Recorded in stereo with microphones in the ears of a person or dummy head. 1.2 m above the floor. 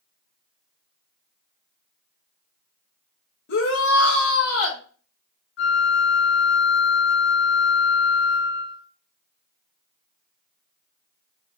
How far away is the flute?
About 0.5 m.